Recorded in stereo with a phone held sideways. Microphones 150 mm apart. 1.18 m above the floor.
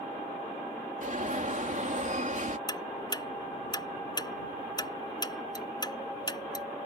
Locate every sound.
1.0 s an alarm: 55° right (ahead or behind)
2.7 s ticking: 25° left (ahead or behind)